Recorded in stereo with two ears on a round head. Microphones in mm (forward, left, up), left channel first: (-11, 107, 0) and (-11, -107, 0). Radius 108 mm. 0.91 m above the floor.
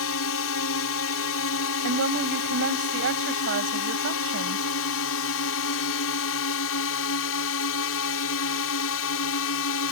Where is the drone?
65° left (ahead or behind).